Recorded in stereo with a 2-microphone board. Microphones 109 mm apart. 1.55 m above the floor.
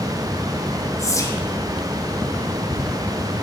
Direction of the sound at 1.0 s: 30° left (ahead or behind).